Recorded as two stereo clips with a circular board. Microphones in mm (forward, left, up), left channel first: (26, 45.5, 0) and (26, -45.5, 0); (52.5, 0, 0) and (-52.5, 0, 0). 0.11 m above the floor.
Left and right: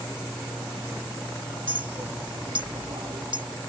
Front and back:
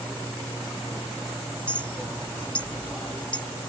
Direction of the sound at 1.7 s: 75° right.